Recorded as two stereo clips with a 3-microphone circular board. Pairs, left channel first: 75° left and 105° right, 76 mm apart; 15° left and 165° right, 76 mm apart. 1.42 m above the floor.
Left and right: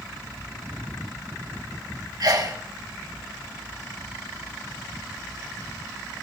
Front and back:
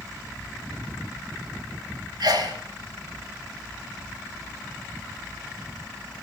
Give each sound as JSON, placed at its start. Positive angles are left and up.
{"t": 2.2, "sound": "a sneeze", "azimuth_deg": -140, "distance_m": 3.0}